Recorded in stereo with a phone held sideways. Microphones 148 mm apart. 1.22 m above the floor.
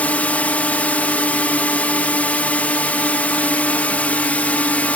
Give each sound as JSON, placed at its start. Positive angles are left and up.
{"t": 0.0, "sound": "a drone", "side_deg": 10}